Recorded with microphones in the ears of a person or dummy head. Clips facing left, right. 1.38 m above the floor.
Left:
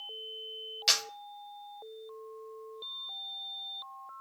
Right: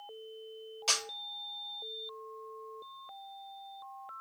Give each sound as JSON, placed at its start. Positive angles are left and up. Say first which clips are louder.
{"t": 0.9, "sound": "a camera shutter", "louder": "left 1 dB", "side_deg": 25, "distance_m": 0.6}